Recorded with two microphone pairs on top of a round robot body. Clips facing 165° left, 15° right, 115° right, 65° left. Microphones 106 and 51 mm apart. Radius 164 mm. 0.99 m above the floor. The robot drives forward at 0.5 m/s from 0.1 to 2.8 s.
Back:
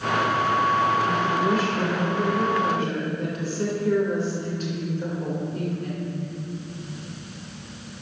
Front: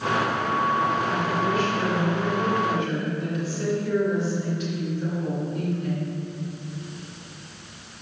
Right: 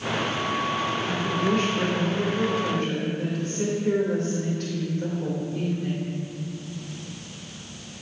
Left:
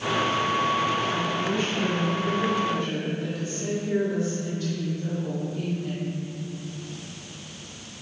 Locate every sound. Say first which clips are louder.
1.1 s a woman speaking: back 2 dB, right 1 dB; 135° right, 3 m; by 6.1 s 145° right, 3.5 m